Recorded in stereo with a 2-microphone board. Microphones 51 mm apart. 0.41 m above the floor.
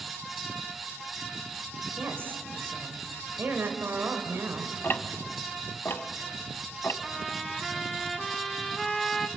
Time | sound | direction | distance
2.0 | a woman speaking | 50° right (ahead or behind) | 2.0 m
4.8 | ticking | 45° left (ahead or behind) | 0.7 m
7.0 | a trumpet | 5° left (ahead or behind) | 1.0 m